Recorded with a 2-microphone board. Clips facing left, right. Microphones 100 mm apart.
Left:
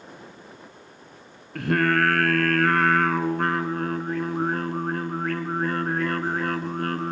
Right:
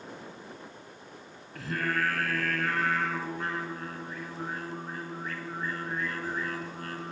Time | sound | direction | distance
1.6 | singing | 65° left (ahead or behind) | 1.6 m